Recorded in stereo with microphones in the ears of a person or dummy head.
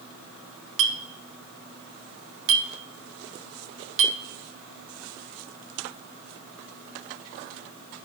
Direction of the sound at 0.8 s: 70° right (ahead or behind).